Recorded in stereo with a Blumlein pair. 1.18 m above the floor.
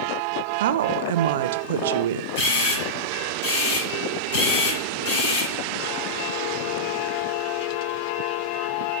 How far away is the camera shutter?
About 5 m.